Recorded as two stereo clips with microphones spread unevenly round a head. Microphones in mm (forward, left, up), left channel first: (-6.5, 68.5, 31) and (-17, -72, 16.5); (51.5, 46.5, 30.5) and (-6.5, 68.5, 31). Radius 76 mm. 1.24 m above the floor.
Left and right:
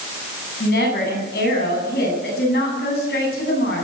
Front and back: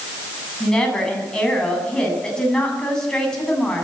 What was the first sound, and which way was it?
A woman speaking, 60° left.